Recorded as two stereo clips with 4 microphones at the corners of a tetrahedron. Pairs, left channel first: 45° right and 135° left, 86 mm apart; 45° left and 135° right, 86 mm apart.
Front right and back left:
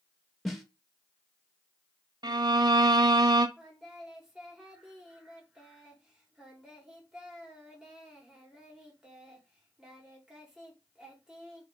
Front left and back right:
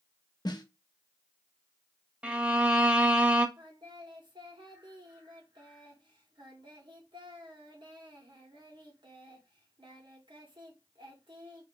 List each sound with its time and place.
0.5 s a snare drum: 45° left, 1.0 m
2.2 s a violin: 150° left, 0.7 m
3.6 s singing: 140° right, 1.8 m